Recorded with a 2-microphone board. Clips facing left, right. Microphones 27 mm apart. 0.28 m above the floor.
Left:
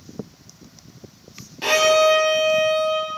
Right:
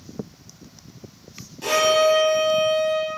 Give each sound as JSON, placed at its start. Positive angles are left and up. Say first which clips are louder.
{"t": 1.6, "sound": "a violin", "louder": "left 2 dB", "side_deg": 40, "distance_m": 1.0}